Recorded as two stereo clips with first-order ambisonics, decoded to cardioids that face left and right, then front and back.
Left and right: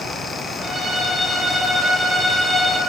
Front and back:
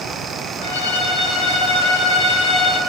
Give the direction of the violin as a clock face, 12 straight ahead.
12 o'clock.